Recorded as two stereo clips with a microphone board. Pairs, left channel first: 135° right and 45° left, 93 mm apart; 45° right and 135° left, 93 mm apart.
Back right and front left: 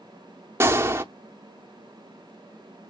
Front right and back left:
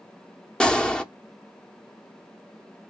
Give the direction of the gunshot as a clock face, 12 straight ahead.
11 o'clock.